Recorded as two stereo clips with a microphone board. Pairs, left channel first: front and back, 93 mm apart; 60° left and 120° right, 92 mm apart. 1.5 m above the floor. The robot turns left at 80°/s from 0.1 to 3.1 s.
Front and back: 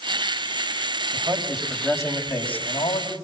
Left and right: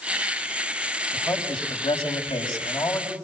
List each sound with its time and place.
1.1 s a man speaking: 125° left, 7 m; by 3.1 s 30° right, 7 m